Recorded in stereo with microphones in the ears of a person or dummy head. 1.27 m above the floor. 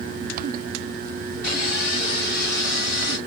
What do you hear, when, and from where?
1.4 s sawing: 55° left (ahead or behind), 1.8 m